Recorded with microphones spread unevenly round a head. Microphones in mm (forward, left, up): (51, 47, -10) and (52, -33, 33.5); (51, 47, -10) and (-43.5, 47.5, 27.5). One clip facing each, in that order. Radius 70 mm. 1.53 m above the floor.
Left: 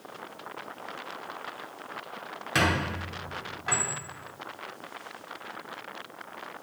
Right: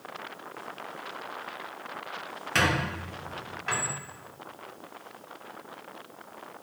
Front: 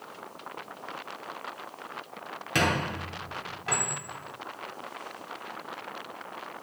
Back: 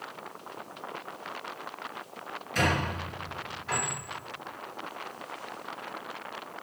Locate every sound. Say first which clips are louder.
2.5 s a squeak: even, front 1 dB; 5° left, 2.5 m